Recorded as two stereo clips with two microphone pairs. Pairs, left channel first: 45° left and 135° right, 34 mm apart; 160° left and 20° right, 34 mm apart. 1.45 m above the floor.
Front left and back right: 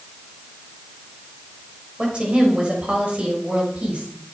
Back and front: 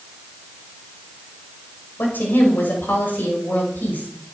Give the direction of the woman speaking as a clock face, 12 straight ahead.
7 o'clock.